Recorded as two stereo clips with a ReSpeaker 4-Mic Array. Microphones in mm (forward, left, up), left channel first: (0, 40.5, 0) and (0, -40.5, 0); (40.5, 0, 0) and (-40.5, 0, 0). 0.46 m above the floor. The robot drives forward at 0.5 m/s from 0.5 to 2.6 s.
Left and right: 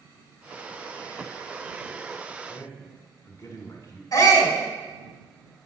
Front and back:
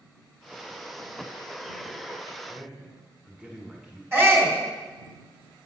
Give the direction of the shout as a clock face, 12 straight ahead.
8 o'clock.